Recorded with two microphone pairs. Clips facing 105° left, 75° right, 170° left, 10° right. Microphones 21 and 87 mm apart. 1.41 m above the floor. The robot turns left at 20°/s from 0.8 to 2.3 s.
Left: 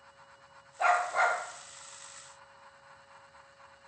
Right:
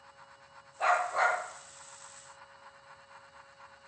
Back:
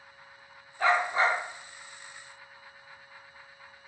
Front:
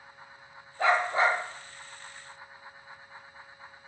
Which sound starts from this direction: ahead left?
A dog barking, at 0.8 s.